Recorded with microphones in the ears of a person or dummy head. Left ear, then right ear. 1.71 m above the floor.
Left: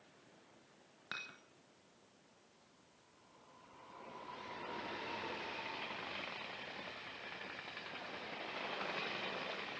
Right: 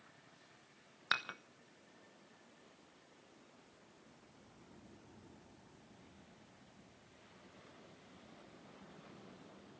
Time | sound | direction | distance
1.1 | dishes clattering | 30° right (ahead or behind) | 1.0 m